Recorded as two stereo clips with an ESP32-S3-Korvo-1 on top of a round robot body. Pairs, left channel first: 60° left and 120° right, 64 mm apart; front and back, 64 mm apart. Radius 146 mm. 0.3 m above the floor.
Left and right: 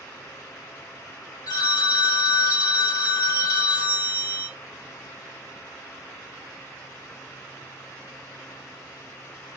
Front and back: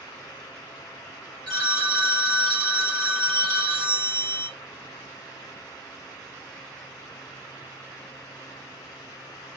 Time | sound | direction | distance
1.5 | a phone ringing | 80° left | 1.3 m